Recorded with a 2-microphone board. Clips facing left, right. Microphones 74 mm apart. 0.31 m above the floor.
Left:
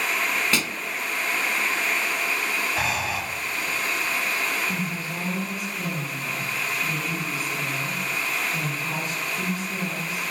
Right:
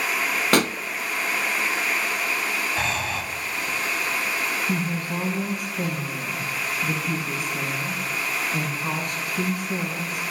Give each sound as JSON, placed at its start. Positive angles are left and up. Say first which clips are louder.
{"t": 0.5, "sound": "a pop", "louder": "right 7 dB", "side_deg": -60, "distance_m": 0.5}
{"t": 2.8, "sound": "breathing", "louder": "even", "side_deg": 5, "distance_m": 1.5}
{"t": 4.7, "sound": "a woman speaking", "louder": "right 3 dB", "side_deg": -60, "distance_m": 3.0}